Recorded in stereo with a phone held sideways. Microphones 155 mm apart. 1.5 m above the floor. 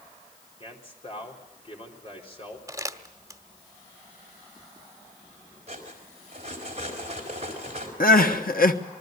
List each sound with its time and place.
0.6 s a man speaking: 40° left (ahead or behind), 4 m
2.7 s crumpling: 20° right (ahead or behind), 1.2 m
5.7 s cutlery clinking: 45° right (ahead or behind), 4 m
8.0 s crying: 70° left (ahead or behind), 1.2 m